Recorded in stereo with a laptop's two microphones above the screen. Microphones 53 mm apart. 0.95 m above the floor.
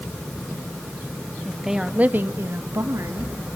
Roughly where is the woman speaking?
Centre.